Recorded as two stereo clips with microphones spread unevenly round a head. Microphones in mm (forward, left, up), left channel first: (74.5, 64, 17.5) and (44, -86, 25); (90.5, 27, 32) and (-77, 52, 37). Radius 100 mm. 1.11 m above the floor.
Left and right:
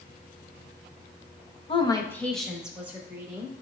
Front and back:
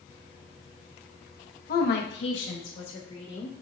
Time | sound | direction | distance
1.7 | a woman speaking | 25° left | 0.8 m